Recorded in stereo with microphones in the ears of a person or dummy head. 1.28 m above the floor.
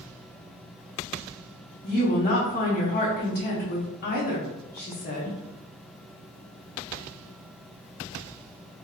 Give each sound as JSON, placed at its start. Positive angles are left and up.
{"t": 1.8, "sound": "a woman speaking", "side_deg": 45, "distance_m": 0.9}